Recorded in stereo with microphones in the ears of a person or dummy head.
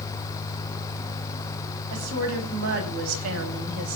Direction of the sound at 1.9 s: 80° right.